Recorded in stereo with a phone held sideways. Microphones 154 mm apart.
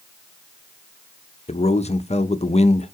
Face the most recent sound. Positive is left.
turn(degrees=45)  # may be behind; listen again after turning